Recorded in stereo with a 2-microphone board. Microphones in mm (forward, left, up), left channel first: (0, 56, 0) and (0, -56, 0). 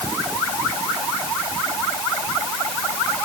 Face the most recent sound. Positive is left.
No sound to turn to.